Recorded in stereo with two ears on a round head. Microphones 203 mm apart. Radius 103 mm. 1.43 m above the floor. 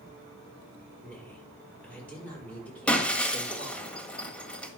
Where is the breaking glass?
5° left (ahead or behind), 1.8 m.